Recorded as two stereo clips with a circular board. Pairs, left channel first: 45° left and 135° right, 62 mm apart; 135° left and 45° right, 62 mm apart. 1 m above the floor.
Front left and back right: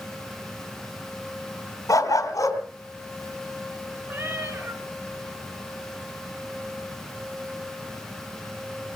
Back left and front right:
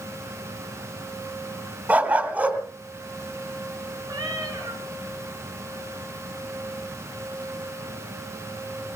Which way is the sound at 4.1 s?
75° right.